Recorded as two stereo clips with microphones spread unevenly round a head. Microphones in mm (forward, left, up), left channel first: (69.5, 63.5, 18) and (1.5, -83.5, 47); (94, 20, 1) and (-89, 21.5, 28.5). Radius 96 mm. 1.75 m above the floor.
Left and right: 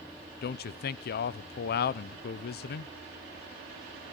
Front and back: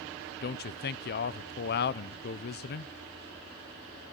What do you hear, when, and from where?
0.4 s a man speaking: 35° left, 0.9 m